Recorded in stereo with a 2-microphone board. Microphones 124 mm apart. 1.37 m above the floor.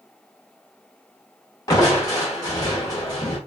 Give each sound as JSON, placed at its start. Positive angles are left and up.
{"t": 1.7, "sound": "crushing", "side_deg": 30, "distance_m": 1.0}